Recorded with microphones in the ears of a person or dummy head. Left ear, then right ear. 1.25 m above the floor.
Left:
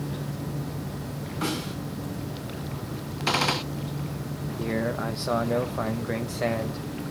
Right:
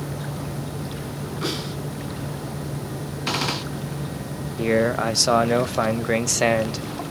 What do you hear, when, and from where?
1.4 s a snare drum: 30° left (ahead or behind), 9.5 m
3.3 s a gunshot: 10° left (ahead or behind), 0.9 m
4.6 s a man speaking: 85° right, 0.8 m